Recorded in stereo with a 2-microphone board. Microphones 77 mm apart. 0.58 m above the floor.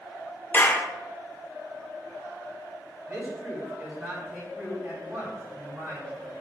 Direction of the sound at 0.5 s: 25° left (ahead or behind).